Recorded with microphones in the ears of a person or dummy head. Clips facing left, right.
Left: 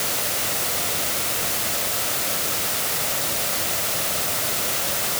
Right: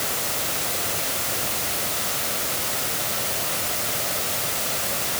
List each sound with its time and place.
Only background noise.